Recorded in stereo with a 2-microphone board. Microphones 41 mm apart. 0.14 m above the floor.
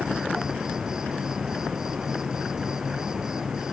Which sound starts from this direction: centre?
An insect, at 0.0 s.